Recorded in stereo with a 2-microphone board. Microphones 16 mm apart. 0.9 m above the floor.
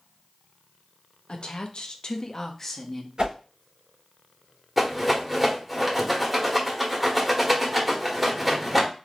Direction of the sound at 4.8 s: 10° right (ahead or behind).